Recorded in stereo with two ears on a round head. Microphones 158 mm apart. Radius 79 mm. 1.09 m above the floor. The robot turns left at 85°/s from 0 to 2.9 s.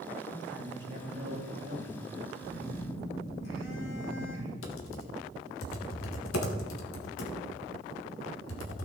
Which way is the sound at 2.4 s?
130° left.